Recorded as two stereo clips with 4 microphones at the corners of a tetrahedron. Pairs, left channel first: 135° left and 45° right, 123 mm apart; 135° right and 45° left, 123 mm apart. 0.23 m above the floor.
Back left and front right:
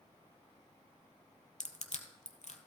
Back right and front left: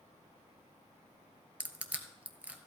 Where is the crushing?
125° left, 1.1 m.